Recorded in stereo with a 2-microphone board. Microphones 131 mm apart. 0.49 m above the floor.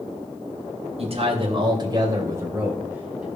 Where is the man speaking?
50° right (ahead or behind), 2.5 m; by 3.3 s 10° right (ahead or behind), 3.5 m.